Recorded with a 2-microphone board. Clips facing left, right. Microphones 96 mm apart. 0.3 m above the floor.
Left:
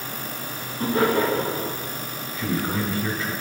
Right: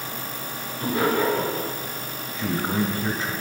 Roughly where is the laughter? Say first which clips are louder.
Left 2 dB; left.